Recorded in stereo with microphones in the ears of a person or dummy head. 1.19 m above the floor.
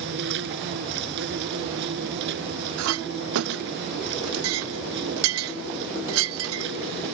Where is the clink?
85° right.